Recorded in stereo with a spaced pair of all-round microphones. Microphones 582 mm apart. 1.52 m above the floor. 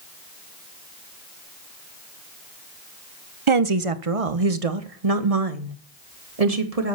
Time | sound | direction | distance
3.5 | a woman speaking | 55° right (ahead or behind) | 0.9 m